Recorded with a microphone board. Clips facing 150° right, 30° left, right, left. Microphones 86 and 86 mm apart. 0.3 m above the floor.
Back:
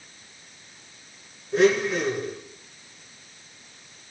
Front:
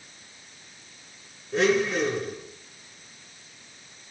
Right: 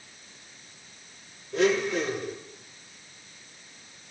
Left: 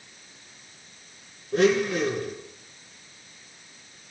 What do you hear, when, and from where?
1.5 s a blender: 120° left, 1.9 m